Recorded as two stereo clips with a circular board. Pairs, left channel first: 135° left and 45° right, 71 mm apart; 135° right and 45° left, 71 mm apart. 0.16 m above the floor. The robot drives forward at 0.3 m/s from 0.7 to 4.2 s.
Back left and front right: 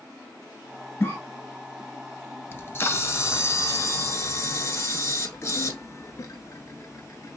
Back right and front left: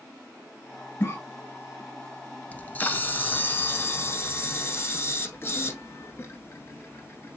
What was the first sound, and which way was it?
A cough, 170° right.